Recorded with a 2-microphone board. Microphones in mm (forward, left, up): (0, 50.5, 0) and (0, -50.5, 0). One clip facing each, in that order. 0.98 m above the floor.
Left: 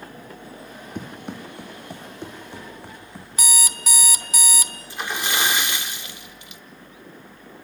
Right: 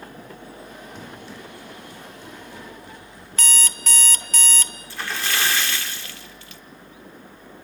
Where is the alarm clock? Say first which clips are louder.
Left 1 dB; 10° left (ahead or behind), 0.7 m.